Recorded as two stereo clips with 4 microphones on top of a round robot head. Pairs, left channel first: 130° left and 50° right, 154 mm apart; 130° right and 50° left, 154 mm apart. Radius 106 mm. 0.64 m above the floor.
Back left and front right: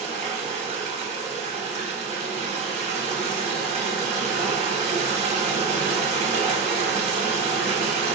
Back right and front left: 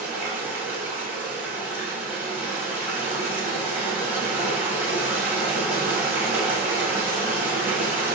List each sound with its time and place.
0.0 s running water: 25° right, 1.2 m